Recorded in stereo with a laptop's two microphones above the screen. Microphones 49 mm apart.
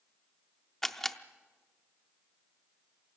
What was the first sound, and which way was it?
A camera shutter, 5° left (ahead or behind).